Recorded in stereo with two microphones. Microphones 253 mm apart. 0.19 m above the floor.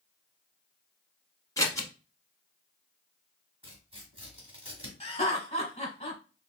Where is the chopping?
No chopping in this recording.